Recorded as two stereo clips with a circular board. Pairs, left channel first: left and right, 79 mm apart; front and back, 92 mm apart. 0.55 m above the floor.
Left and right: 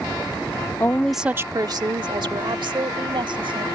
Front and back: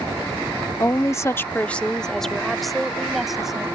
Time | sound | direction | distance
0.8 | a woman speaking | 45° left | ?